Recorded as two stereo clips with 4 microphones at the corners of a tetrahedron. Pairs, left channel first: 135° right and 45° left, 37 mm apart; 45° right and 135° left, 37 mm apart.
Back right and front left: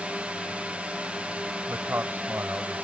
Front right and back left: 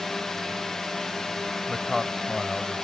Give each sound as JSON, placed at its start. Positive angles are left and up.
{"t": 0.0, "sound": "a drone", "azimuth_deg": 25}
{"t": 1.7, "sound": "a man speaking", "azimuth_deg": 45}